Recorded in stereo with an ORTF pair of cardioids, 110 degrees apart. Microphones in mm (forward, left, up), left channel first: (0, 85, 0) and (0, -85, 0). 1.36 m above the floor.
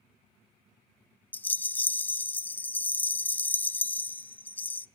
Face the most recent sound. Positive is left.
turn(degrees=10)